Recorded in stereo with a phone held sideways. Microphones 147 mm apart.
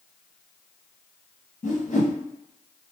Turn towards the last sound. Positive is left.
turn(degrees=50)  # may be behind; listen again after turning